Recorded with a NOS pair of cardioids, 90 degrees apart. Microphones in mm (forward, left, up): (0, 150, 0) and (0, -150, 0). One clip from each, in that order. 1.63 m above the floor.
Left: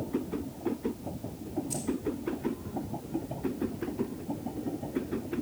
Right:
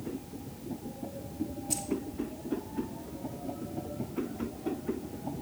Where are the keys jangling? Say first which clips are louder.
Right 2 dB; 30° right, 2.5 m.